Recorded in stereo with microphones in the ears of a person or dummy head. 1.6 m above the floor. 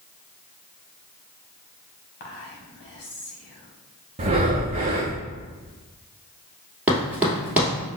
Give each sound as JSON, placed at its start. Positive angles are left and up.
{"t": 2.2, "sound": "whispering", "side_deg": 45, "distance_m": 0.9}
{"t": 4.2, "sound": "breathing", "side_deg": -25, "distance_m": 0.6}
{"t": 6.9, "sound": "running footsteps", "side_deg": -10, "distance_m": 1.8}